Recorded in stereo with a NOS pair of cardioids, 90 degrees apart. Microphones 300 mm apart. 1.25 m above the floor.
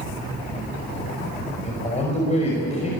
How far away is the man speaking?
About 5.5 m.